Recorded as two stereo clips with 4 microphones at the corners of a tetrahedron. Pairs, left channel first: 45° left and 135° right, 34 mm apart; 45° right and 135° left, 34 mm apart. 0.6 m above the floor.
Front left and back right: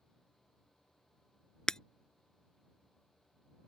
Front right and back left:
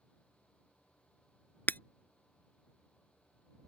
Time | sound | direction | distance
1.7 | breaking glass | 30° right | ?